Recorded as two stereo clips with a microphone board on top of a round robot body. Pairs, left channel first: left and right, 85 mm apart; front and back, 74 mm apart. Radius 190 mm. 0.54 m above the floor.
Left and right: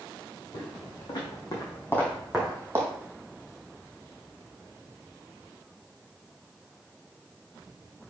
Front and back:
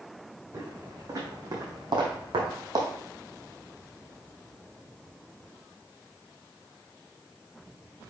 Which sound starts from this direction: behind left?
Footsteps, at 0.5 s.